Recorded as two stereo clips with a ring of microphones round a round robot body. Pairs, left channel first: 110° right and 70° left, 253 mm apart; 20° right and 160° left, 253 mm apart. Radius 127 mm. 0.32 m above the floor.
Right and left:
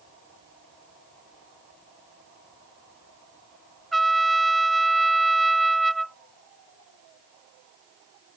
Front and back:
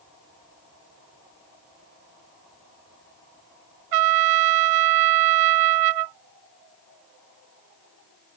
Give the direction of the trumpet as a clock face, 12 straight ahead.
7 o'clock.